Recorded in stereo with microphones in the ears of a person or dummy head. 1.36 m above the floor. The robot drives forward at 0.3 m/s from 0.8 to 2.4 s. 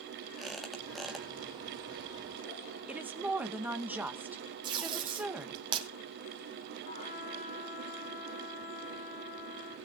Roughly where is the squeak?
Centre.